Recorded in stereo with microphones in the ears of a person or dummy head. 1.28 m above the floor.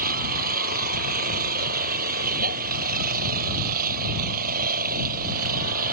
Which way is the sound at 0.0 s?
50° right (ahead or behind).